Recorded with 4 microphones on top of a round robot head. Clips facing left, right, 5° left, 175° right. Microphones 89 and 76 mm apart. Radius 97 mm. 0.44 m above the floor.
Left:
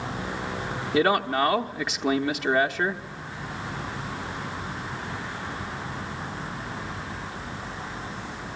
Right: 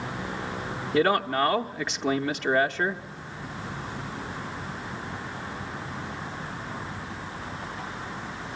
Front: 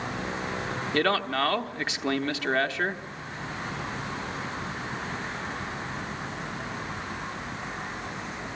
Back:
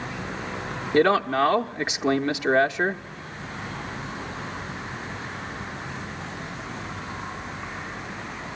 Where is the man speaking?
165° left, 0.9 m.